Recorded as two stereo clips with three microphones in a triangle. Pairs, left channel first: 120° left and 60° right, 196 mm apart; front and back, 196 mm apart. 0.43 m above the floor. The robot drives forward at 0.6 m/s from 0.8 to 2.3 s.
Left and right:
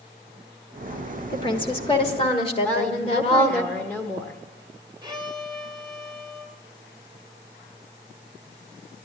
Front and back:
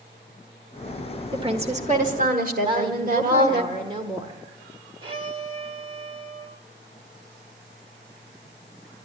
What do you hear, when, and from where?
1.3 s a woman speaking: 155° left, 1.1 m; by 3.6 s 170° left, 1.4 m
2.6 s a woman speaking: 170° right, 1.3 m
5.0 s a violin: 120° right, 1.3 m